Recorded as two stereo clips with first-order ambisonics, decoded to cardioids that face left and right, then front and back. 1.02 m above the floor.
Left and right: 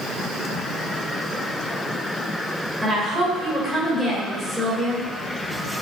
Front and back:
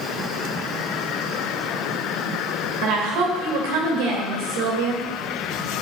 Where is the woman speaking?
175° right, 3.5 m.